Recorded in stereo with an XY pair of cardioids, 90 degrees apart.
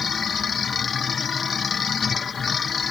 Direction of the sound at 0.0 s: 50° left.